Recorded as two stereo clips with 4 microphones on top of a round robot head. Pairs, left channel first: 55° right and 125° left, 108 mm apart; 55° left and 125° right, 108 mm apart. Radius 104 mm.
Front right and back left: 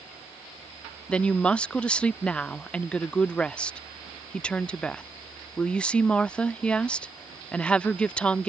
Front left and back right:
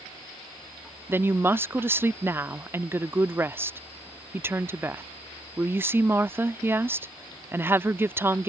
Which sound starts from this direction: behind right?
A woman speaking, at 1.1 s.